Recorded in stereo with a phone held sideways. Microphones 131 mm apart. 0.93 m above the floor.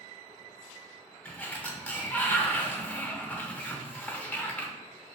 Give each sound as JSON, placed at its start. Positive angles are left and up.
{"t": 1.2, "sound": "a sliding door", "side_deg": 10, "distance_m": 0.7}